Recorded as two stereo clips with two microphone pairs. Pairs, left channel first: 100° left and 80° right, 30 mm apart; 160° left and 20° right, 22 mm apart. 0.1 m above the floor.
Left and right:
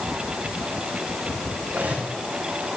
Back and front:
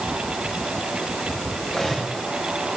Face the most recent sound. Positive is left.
turn(degrees=-110)